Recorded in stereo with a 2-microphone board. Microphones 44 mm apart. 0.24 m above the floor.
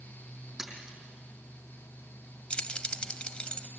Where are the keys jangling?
25° left (ahead or behind), 0.6 m.